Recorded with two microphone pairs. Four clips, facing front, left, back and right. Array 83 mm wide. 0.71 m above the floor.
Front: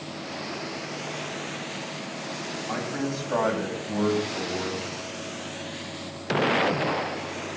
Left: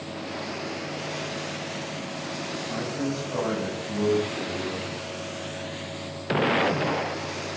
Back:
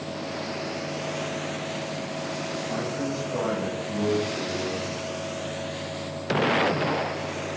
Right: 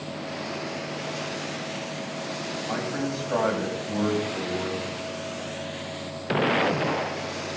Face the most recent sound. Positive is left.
turn(degrees=-45)